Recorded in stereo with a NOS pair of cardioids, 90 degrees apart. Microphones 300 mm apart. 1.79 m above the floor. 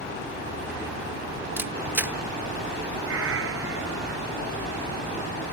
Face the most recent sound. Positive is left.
turn(degrees=-45)